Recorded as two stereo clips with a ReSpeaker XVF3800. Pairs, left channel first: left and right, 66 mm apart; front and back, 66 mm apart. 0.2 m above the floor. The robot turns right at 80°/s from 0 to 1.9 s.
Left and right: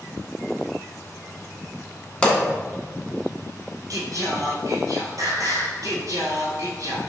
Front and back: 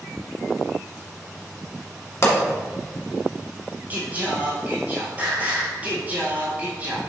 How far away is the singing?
About 1.5 m.